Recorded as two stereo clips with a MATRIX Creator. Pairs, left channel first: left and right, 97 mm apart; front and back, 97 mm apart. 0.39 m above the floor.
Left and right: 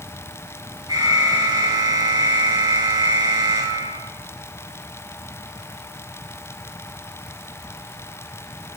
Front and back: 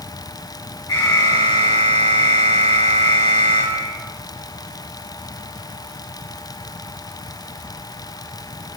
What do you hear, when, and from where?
0.9 s an alarm: 45° right, 4.5 m